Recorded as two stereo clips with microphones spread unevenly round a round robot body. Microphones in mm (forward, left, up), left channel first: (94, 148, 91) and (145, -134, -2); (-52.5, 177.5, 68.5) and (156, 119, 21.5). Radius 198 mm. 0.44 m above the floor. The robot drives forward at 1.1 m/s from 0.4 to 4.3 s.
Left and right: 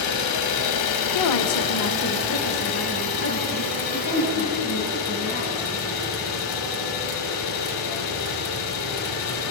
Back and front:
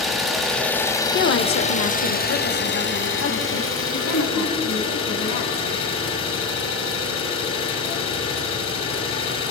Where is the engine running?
70° left, 3 m; by 9.5 s 145° left, 4.5 m.